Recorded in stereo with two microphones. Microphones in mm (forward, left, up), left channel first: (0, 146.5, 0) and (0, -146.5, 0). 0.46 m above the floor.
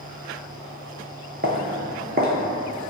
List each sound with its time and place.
1.4 s footsteps: 35° right (ahead or behind), 0.5 m